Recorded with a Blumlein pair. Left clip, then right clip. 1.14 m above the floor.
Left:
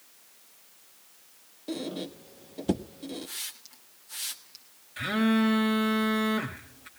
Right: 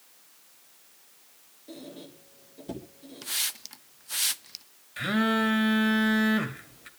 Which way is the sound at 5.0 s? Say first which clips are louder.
Right 1 dB; 10° right.